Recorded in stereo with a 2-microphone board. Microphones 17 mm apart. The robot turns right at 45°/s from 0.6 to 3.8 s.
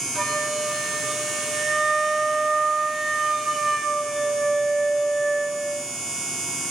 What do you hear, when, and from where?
0.1 s a flute: 175° right, 2.5 m; by 5.7 s 30° right, 2.5 m